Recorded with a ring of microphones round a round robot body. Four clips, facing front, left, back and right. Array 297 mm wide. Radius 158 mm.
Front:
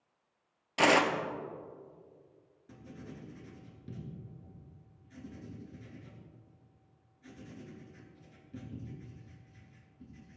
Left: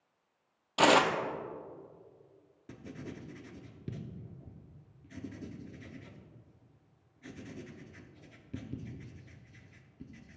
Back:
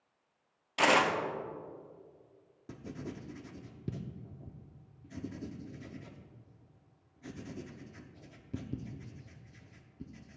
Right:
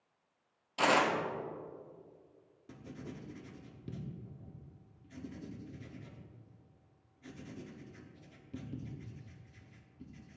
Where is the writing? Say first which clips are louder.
Left 2 dB, back 5 dB; 160° left, 1.2 m.